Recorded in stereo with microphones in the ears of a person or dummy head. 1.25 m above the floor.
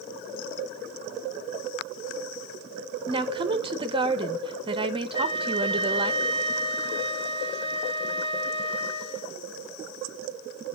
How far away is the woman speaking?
About 0.7 m.